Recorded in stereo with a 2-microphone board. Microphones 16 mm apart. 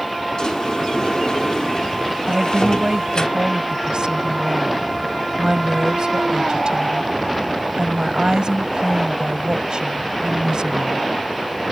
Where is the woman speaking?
75° right (ahead or behind).